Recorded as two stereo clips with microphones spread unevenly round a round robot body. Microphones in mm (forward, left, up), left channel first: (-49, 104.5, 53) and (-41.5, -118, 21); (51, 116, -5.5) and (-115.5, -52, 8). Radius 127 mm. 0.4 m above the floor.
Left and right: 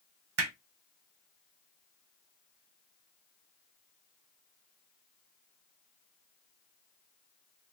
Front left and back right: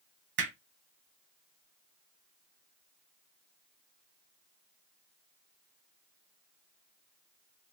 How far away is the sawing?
No sawing in this recording.